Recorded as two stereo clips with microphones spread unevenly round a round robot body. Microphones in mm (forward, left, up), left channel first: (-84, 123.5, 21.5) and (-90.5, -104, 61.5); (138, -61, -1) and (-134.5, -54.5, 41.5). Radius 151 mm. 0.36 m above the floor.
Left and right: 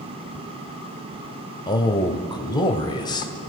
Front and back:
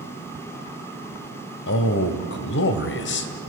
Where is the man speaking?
25° left, 1.5 m.